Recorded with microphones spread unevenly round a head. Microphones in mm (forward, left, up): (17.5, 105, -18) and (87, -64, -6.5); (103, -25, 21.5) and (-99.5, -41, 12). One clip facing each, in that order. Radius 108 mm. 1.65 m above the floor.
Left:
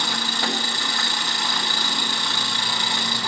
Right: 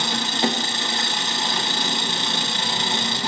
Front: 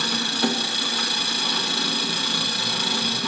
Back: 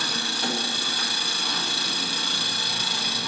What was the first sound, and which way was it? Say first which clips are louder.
An engine running: right 4 dB, front 6 dB; 5° right.